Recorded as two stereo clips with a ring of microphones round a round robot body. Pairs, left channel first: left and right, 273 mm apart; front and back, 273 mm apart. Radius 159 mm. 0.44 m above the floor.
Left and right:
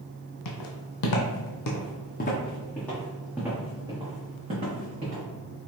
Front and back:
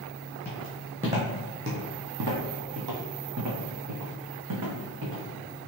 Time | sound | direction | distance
0.5 | footsteps | 80° left | 1.1 m